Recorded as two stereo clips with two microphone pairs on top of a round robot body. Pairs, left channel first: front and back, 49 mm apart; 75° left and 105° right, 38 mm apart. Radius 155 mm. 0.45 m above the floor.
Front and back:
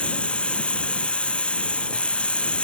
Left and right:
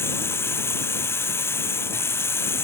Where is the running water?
70° left.